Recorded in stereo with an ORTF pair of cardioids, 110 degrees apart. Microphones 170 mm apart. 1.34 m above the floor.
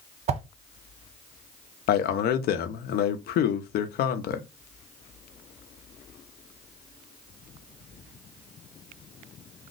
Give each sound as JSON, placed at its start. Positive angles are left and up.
{"t": 0.3, "sound": "a whoosh", "azimuth_deg": -40, "distance_m": 0.6}
{"t": 1.9, "sound": "a man speaking", "azimuth_deg": 65, "distance_m": 0.6}